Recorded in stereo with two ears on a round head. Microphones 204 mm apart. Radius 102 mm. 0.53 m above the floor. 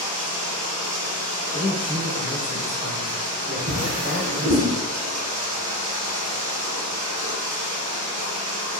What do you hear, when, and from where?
0.0 s running water: 70° right (ahead or behind), 0.8 m
1.5 s a man speaking: 15° right (ahead or behind), 1.5 m
3.7 s a drawer: 80° right, 0.7 m